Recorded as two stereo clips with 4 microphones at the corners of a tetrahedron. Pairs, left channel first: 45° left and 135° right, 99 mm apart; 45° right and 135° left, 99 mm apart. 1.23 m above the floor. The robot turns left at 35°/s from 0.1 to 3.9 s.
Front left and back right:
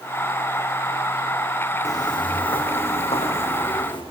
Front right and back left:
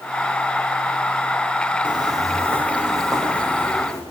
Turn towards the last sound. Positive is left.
turn(degrees=10)